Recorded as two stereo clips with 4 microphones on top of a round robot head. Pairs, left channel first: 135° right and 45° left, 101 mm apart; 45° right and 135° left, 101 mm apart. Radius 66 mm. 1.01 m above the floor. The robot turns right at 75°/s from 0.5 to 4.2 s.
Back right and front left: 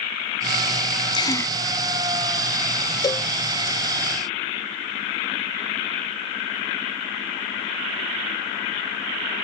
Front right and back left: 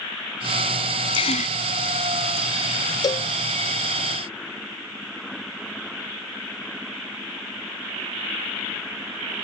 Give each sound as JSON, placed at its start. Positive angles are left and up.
{"t": 1.1, "sound": "a gasp", "azimuth_deg": -85}
{"t": 3.0, "sound": "a cowbell", "azimuth_deg": -90}